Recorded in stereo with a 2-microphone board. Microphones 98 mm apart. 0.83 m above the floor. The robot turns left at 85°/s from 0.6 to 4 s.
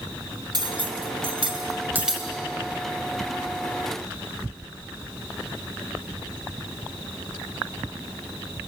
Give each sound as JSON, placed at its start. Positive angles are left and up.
{"t": 0.5, "sound": "cutlery clinking", "side_deg": -45, "distance_m": 3.0}